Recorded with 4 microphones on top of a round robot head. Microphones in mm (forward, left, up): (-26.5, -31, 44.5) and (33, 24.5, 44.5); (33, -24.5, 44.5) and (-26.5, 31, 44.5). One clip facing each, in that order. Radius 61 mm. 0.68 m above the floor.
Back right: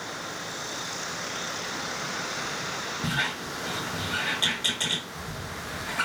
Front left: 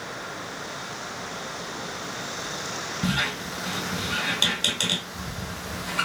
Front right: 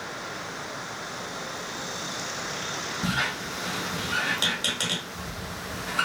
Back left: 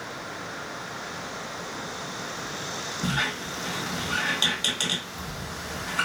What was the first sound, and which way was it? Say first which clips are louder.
A squeak: front left 3 dB, even; 40° left.